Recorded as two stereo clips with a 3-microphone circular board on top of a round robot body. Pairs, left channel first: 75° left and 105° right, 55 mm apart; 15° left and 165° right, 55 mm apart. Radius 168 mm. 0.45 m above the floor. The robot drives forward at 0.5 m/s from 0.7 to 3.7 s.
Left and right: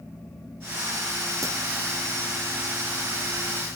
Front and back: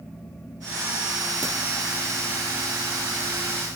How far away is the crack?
About 3 m.